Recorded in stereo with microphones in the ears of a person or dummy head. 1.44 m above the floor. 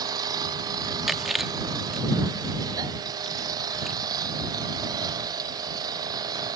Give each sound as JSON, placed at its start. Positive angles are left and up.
{"t": 0.0, "sound": "an engine running", "side_deg": -20}
{"t": 1.1, "sound": "chewing", "side_deg": 0}